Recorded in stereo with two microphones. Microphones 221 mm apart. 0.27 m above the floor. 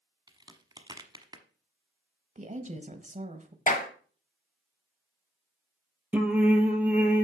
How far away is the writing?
No writing in this recording.